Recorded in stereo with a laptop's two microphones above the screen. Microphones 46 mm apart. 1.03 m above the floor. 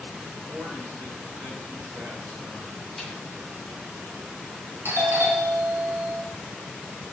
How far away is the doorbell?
About 1.7 m.